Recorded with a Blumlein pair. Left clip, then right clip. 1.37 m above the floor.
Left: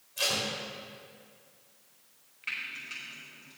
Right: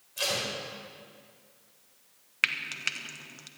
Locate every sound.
0.2 s tape being pulled: straight ahead, 5 m
2.4 s frying: 45° right, 1.4 m